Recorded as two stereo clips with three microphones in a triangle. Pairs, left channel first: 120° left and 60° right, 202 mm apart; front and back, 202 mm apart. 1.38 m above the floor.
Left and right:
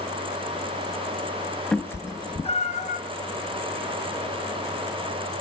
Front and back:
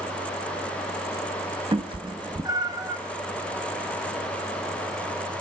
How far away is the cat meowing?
About 0.7 m.